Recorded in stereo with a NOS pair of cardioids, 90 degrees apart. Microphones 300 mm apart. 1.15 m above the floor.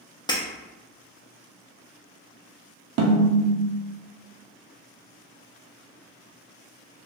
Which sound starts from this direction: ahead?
Breaking glass, at 0.3 s.